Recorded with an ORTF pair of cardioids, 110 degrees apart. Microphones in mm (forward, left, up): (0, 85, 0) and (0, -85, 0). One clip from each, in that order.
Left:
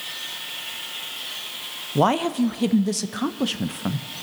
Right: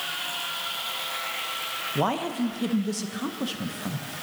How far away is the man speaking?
About 0.5 m.